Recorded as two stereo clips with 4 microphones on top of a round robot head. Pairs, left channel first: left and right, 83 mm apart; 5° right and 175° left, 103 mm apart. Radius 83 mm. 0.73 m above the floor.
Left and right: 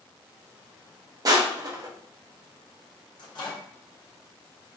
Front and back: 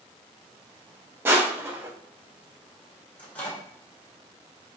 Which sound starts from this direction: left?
A microwave, at 3.2 s.